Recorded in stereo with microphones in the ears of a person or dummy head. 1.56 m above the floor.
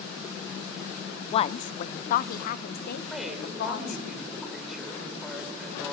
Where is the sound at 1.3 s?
35° left (ahead or behind), 0.7 m; by 4.1 s 70° left (ahead or behind), 2.5 m.